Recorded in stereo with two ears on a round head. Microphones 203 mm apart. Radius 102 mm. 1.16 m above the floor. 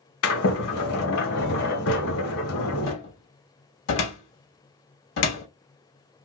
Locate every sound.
0.2 s a sliding door: 70° left (ahead or behind), 1.2 m
2.9 s a cupboard door: 60° left (ahead or behind), 1.2 m